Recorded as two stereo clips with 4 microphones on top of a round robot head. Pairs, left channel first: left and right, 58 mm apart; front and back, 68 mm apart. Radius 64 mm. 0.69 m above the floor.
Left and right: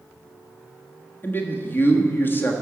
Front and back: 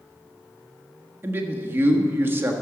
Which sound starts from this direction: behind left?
A man speaking, at 1.2 s.